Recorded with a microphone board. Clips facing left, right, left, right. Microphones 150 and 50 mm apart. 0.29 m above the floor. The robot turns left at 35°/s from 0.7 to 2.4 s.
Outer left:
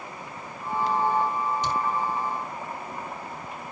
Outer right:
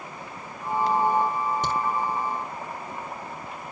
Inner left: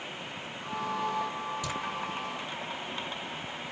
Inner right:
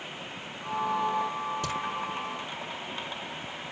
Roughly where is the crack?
Right.